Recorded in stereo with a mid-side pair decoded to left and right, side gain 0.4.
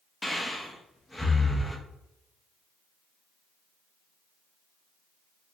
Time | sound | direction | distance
0.2 | breathing | 10° left | 0.7 m